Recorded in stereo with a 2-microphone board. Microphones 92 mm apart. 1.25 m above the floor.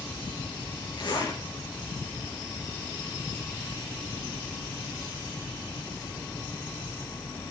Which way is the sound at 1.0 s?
55° left (ahead or behind).